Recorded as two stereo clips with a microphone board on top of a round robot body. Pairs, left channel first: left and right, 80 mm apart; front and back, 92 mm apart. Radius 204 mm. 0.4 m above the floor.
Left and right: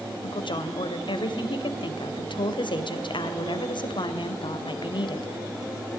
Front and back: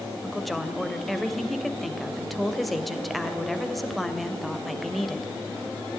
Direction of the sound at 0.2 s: 90° left.